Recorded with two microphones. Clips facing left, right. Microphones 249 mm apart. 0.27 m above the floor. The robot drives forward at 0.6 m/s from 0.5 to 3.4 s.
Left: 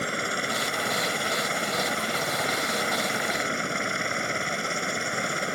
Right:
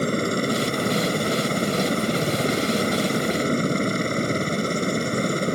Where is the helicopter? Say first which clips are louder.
Right 10 dB; 45° right (ahead or behind); by 5.6 s 40° right (ahead or behind).